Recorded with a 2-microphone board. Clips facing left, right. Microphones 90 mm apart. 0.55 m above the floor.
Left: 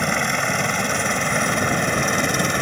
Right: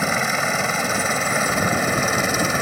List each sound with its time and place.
0.0 s a helicopter: 5° right (ahead or behind)